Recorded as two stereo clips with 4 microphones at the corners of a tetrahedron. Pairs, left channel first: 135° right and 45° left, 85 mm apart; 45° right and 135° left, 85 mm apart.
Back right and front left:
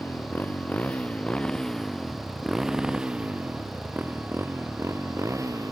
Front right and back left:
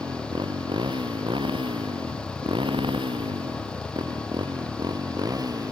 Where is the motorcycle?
160° left; by 5.7 s 90° left.